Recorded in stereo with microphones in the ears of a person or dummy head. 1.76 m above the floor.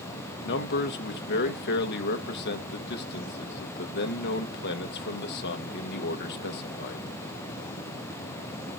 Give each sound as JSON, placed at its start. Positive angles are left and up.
{"t": 0.4, "sound": "a man speaking", "side_deg": 55, "distance_m": 1.5}